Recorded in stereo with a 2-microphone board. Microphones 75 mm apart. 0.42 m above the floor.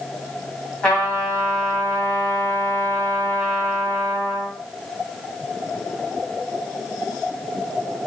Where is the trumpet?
10° left (ahead or behind), 2.5 m.